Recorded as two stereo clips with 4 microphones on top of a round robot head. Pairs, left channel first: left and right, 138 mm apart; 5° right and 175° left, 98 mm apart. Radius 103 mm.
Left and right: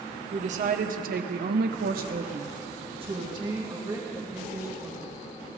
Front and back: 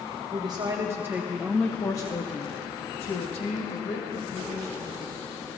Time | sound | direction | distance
0.3 | a woman speaking | 130° right | 1.3 m